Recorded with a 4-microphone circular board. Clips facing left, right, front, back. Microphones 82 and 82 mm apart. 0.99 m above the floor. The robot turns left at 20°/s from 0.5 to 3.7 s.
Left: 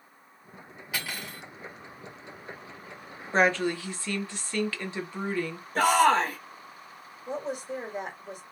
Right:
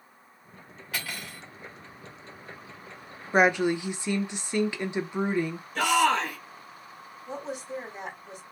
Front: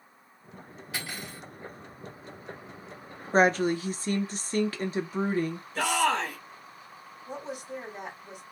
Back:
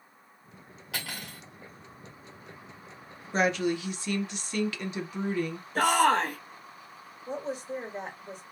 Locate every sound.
0.9 s cutlery clinking: 170° left, 1.8 m; by 1.4 s 160° left, 1.8 m
3.3 s a woman speaking: 20° right, 0.6 m; by 5.7 s 25° right, 0.6 m
5.8 s a shout: 140° left, 1.0 m
7.3 s a woman speaking: 125° left, 1.9 m